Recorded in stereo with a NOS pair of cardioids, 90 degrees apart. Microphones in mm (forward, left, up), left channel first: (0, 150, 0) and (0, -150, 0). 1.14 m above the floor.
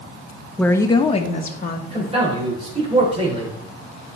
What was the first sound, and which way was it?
A woman speaking, 5° left.